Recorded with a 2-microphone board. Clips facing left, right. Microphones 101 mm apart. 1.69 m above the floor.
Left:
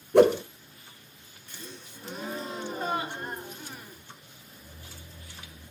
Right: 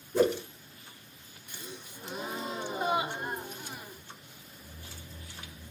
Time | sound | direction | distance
0.1 | a whoosh | 65° left (ahead or behind) | 0.6 m
1.5 | a gasp | 15° right (ahead or behind) | 1.3 m